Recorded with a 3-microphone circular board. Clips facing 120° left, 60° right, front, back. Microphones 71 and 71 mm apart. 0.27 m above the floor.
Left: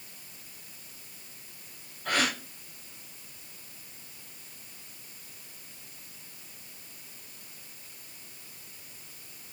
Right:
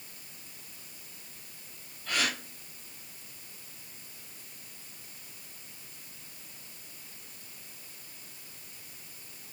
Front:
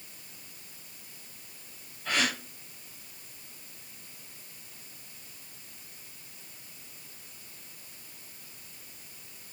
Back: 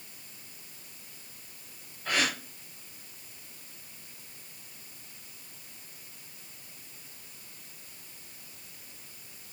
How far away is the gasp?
About 5.5 m.